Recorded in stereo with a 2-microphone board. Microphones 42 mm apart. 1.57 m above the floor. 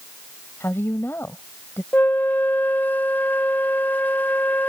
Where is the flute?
50° left (ahead or behind).